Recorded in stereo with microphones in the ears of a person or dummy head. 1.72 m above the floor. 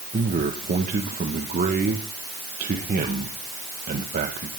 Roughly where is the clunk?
No clunk in this recording.